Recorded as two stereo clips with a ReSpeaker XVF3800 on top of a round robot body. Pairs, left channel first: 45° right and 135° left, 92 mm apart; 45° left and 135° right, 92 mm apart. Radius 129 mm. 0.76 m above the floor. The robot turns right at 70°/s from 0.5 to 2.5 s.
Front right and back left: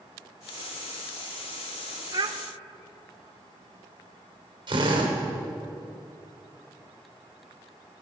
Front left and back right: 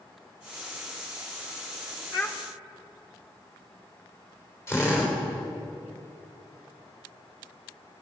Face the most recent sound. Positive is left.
turn(degrees=105)